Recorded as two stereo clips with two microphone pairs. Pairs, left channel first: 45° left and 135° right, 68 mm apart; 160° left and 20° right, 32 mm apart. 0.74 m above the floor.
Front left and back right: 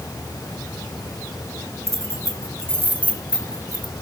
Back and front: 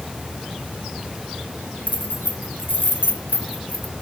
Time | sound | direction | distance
1.9 | keys jangling | straight behind | 2.5 m